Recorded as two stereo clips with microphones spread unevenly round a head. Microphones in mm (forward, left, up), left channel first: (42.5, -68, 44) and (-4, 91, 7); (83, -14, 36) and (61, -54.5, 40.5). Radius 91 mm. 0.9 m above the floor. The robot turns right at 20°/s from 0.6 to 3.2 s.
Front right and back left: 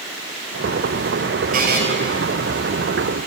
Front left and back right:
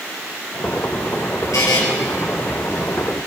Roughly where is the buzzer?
Ahead left.